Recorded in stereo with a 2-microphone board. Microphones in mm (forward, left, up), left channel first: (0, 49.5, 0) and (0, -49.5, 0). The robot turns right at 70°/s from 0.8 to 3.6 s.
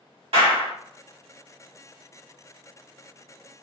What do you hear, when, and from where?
0.3 s a clap: 75° right (ahead or behind), 1.7 m